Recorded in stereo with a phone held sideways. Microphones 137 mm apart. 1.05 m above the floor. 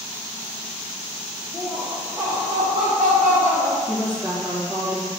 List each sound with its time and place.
1.5 s laughter: 15° left (ahead or behind), 0.8 m; by 3.8 s 65° right (ahead or behind), 1.5 m
3.9 s a woman speaking: 20° right (ahead or behind), 1.3 m